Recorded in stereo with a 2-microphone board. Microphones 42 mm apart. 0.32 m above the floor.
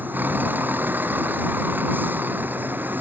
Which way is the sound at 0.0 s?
50° right (ahead or behind).